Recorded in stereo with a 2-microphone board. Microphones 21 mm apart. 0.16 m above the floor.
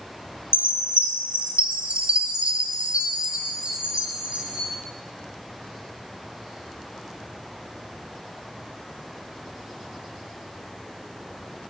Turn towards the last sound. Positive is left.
turn(degrees=-70)  # may be behind; listen again after turning